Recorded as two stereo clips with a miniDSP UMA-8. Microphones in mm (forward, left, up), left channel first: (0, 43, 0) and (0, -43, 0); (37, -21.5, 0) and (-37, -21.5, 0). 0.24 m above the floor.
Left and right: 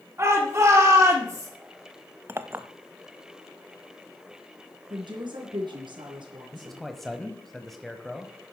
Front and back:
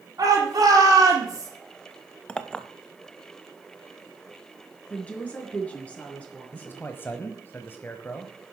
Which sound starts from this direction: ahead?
A man speaking, at 6.5 s.